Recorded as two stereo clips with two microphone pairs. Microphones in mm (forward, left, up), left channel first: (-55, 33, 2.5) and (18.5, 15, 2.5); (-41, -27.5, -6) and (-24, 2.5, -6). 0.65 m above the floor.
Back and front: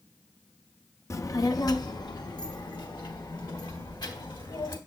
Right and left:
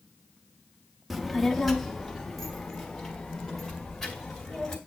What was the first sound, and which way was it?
A child speaking, 150° left.